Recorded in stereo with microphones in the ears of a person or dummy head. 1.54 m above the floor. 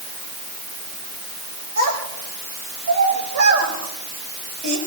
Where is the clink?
I don't hear a clink.